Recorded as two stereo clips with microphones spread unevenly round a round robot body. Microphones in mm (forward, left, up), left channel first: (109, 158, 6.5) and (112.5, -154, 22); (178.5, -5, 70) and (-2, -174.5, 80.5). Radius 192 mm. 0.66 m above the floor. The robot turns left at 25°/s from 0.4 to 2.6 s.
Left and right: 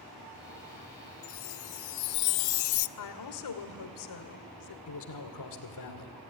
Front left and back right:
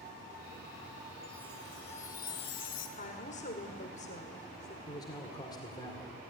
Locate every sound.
1.2 s a chime: 135° left, 0.5 m; by 2.9 s 100° left, 0.5 m
3.0 s a woman speaking: 105° left, 1.8 m
4.9 s a man speaking: 120° left, 2 m